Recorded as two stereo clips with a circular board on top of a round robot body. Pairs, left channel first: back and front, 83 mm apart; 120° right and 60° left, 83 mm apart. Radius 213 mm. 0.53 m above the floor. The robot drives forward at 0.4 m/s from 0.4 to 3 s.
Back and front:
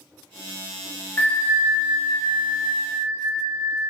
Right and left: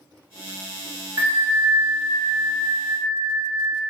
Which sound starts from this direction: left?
A bell, at 1.2 s.